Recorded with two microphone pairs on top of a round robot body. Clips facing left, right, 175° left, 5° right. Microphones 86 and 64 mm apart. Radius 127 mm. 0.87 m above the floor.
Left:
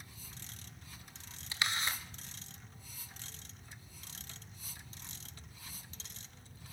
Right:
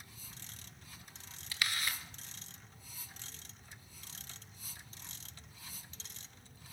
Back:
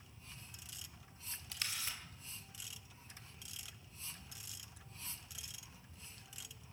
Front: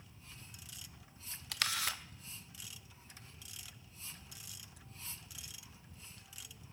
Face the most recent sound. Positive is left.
turn(degrees=25)